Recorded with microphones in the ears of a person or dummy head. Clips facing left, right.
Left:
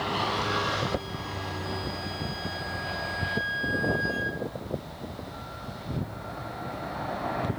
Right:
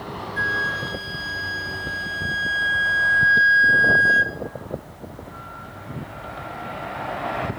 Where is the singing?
No singing in this recording.